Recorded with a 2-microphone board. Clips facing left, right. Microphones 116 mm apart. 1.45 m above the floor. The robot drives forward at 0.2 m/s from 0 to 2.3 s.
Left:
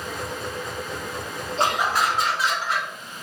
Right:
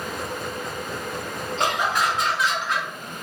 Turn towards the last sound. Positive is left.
turn(degrees=30)  # may be behind; listen again after turning